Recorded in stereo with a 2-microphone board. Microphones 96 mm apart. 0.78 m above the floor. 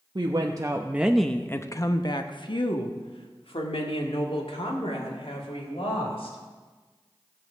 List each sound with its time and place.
0.1 s a woman speaking: 50° right (ahead or behind), 0.9 m; by 6.4 s 80° left, 3.5 m